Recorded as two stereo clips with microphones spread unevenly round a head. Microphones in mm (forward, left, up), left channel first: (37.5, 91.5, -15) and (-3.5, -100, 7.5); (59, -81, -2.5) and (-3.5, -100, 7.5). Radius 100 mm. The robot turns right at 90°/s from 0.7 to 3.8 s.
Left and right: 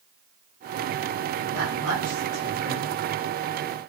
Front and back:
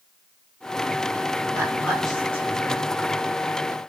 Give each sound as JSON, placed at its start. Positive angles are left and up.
{"t": 1.5, "sound": "a woman speaking", "azimuth_deg": -120, "distance_m": 1.8}